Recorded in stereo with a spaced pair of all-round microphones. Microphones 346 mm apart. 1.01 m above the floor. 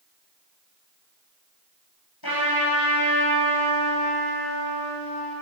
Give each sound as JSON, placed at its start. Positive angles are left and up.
{"t": 2.2, "sound": "a trumpet", "side_deg": 80, "distance_m": 4.0}